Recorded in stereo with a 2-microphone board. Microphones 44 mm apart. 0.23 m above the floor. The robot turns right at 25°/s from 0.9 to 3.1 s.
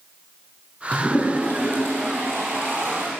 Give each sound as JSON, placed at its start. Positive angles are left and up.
{"t": 0.9, "sound": "a toilet flushing", "side_deg": 30, "distance_m": 4.5}